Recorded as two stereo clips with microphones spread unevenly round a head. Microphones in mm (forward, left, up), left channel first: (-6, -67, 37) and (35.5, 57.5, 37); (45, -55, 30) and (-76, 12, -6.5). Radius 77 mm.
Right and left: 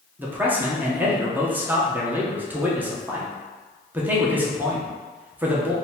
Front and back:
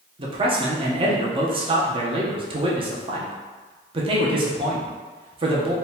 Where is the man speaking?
145° left, 0.6 m.